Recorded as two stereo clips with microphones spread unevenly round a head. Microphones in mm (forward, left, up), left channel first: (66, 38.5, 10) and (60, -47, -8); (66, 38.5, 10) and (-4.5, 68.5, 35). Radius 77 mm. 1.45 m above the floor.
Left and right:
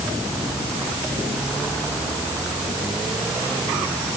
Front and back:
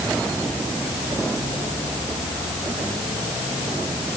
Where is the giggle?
I don't hear a giggle.